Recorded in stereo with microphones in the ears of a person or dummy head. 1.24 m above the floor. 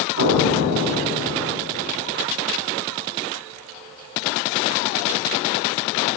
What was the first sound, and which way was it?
An explosion, 60° right (ahead or behind).